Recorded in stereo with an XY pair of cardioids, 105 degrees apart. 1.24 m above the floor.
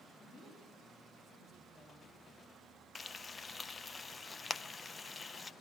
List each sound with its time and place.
0.2 s a woman speaking: 35° left, 9 m
3.0 s frying: 35° left, 0.5 m